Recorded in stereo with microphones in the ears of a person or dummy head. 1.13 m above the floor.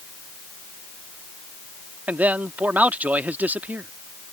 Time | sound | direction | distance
2.1 | a man speaking | 5° right (ahead or behind) | ?